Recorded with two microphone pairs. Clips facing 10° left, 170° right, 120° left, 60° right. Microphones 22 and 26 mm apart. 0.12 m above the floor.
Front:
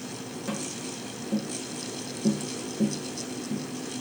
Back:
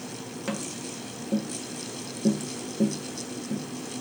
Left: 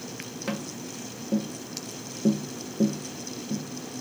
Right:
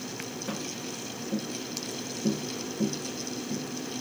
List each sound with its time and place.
0.5 s tapping: 145° left, 0.6 m